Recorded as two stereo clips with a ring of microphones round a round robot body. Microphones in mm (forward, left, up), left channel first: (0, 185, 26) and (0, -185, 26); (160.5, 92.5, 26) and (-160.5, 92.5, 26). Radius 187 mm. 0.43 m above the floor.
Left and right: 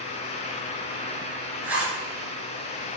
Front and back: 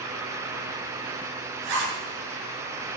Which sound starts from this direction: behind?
A zipper, at 1.6 s.